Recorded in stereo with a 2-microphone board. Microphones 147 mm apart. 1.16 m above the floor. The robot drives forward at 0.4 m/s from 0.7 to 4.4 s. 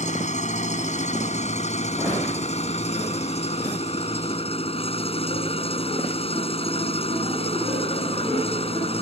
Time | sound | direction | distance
0.0 | an engine running | 50° left (ahead or behind) | ?